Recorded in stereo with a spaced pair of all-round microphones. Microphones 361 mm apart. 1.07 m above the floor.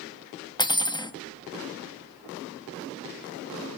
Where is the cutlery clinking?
10° left (ahead or behind), 0.8 m.